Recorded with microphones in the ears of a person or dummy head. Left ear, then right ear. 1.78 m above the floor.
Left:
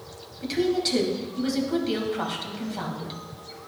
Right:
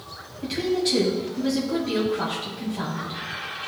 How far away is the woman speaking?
About 1.9 m.